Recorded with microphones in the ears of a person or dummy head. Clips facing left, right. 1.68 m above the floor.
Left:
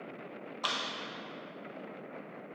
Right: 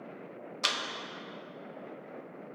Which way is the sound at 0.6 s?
30° right (ahead or behind).